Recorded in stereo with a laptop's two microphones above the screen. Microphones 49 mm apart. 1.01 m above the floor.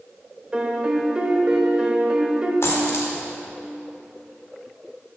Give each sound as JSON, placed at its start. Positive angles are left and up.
{"t": 0.5, "sound": "a piano", "side_deg": -20, "distance_m": 0.9}
{"t": 2.6, "sound": "a dropped coin", "side_deg": 70, "distance_m": 1.2}